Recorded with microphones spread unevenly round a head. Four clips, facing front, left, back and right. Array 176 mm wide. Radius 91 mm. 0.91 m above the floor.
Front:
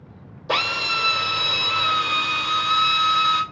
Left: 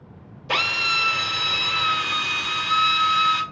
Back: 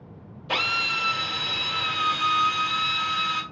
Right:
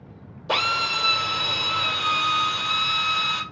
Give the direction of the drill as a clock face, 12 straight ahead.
1 o'clock.